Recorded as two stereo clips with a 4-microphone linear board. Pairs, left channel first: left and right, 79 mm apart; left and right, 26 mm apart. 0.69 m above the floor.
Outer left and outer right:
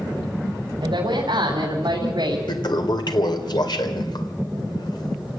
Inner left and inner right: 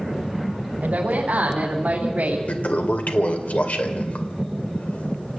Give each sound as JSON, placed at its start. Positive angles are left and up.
{"t": 0.8, "sound": "a woman speaking", "side_deg": -70, "distance_m": 4.0}
{"t": 2.5, "sound": "a toilet flushing", "side_deg": 70, "distance_m": 2.0}